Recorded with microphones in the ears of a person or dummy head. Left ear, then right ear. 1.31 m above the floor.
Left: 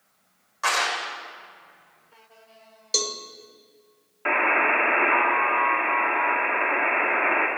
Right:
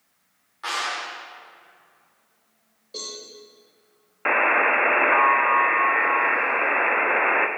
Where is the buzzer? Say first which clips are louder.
Right 2 dB; 30° right (ahead or behind), 0.6 m.